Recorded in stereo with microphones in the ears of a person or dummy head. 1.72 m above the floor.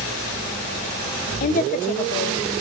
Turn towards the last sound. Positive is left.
turn(degrees=45)  # may be behind; listen again after turning